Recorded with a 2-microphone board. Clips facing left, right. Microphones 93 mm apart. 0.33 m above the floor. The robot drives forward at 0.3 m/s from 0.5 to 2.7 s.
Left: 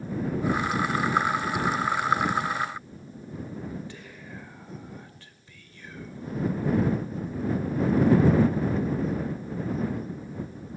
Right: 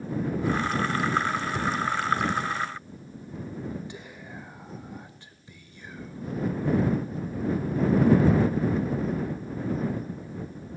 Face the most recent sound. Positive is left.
turn(degrees=-20)  # may be behind; listen again after turning